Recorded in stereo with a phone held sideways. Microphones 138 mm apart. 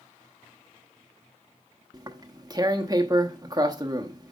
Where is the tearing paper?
25° right (ahead or behind), 0.9 m.